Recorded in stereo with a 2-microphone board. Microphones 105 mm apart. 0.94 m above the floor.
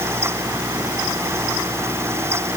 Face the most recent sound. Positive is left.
No sound to turn to.